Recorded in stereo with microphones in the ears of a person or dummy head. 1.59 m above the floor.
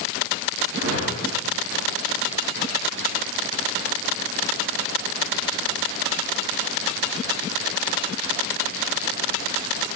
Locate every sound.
0.8 s a whoosh: 70° right (ahead or behind), 2 m